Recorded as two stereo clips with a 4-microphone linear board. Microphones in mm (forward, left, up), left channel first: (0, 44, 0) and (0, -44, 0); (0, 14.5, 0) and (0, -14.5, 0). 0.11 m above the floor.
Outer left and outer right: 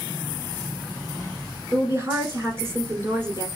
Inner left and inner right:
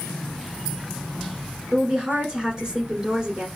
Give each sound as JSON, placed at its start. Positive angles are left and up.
{"t": 1.7, "sound": "a woman speaking", "side_deg": -25, "distance_m": 1.5}